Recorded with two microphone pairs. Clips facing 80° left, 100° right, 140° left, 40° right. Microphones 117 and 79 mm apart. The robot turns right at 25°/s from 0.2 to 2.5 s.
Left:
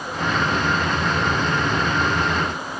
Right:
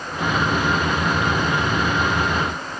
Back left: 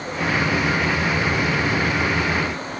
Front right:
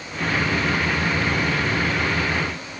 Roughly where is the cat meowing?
I don't hear a cat meowing.